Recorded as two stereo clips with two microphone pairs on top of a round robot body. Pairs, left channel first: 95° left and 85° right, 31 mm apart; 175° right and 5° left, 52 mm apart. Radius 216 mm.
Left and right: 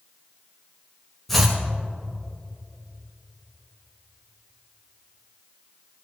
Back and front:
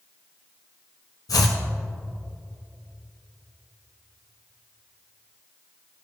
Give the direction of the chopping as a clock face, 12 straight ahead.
6 o'clock.